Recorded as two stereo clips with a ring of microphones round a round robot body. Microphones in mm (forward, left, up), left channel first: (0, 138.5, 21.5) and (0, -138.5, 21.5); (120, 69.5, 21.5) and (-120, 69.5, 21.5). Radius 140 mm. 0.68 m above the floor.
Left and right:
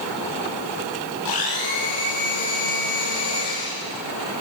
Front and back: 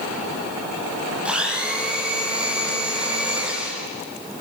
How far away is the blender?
About 9.5 m.